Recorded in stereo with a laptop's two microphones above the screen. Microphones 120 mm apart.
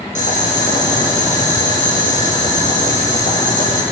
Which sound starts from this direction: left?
Boiling, at 0.1 s.